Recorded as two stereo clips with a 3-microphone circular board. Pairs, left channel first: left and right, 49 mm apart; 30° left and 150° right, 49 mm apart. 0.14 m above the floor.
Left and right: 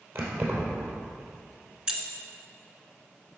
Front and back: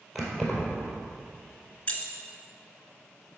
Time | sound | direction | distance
0.1 | keys jangling | 60° right | 2.5 m
1.9 | keys jangling | 25° right | 1.3 m